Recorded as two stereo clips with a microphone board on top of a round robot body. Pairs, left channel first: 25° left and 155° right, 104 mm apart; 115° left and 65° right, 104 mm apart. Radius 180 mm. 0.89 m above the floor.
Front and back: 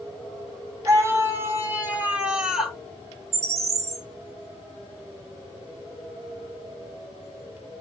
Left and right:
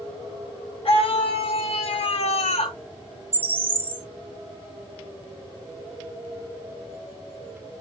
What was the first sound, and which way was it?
A scream, 140° left.